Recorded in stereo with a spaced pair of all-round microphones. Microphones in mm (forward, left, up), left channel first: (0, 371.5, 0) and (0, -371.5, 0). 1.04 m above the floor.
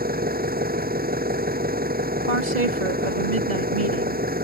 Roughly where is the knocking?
No knocking in this recording.